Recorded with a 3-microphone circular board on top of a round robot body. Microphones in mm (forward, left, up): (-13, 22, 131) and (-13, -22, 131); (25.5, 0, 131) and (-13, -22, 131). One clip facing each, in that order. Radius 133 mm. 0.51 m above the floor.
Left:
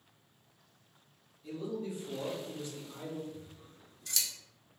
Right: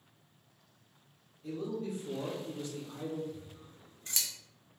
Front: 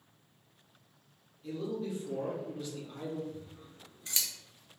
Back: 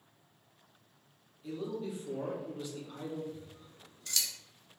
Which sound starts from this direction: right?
A man speaking, at 1.4 s.